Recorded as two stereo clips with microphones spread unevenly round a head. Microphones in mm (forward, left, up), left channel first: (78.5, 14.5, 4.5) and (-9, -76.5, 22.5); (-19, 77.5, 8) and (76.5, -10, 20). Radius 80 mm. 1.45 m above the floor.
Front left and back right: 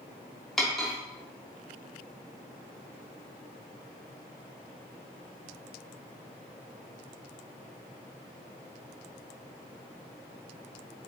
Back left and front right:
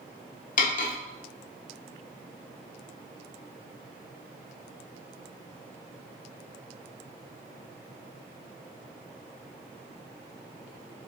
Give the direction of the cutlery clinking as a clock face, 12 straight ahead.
7 o'clock.